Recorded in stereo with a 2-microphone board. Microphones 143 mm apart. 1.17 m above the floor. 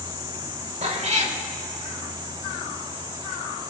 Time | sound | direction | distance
0.8 | a cat meowing | 50° right (ahead or behind) | 1.3 m